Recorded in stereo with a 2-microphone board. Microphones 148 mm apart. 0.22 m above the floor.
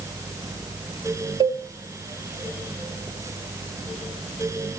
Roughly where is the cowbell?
Right.